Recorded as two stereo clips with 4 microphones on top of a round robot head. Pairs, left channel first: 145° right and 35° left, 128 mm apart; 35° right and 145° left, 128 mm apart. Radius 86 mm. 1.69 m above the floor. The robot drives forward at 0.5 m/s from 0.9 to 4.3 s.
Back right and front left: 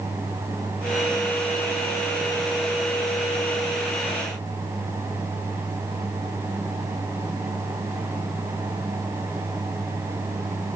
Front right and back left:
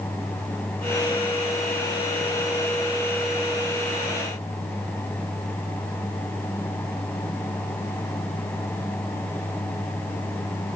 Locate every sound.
Only background noise.